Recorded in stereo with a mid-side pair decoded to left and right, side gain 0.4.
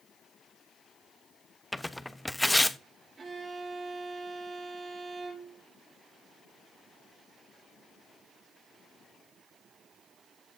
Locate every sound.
1.7 s tearing paper: 10° left, 0.5 m
3.2 s a violin: 45° right, 3.5 m